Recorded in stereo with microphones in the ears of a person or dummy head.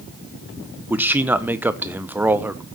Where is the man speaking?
Centre (ahead or behind), 1.0 m.